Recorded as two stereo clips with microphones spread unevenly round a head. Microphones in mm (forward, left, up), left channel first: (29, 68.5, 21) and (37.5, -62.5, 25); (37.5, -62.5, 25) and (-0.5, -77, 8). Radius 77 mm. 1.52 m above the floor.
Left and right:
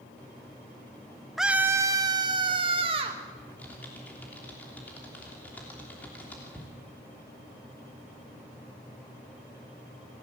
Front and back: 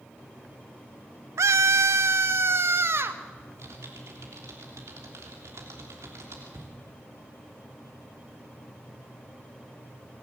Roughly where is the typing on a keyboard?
Behind.